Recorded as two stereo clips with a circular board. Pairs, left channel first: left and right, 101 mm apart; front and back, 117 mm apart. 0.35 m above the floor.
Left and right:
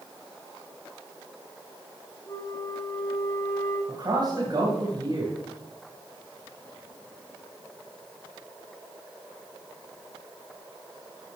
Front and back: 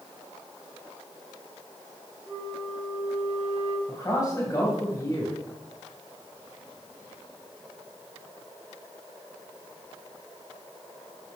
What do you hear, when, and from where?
2.3 s a flute: 145° left, 3 m
3.9 s a man speaking: 55° right, 2.5 m